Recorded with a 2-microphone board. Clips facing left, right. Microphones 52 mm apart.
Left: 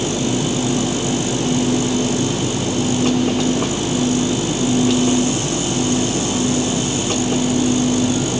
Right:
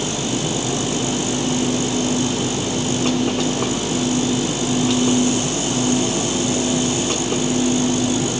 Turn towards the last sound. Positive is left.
No sound to turn to.